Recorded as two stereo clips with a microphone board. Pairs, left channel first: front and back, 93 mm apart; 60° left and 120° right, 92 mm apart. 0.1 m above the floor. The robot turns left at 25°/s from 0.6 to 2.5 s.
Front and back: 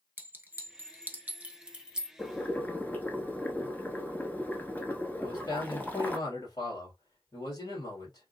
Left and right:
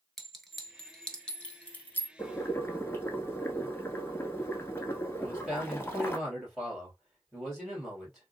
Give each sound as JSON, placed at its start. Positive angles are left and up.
{"t": 0.2, "sound": "a clink", "azimuth_deg": 145, "distance_m": 0.9}
{"t": 2.2, "sound": "boiling", "azimuth_deg": 55, "distance_m": 1.0}
{"t": 5.2, "sound": "a man speaking", "azimuth_deg": -25, "distance_m": 3.0}